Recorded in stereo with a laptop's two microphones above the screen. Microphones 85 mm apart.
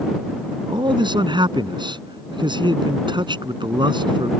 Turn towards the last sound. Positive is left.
turn(degrees=-65)  # may be behind; listen again after turning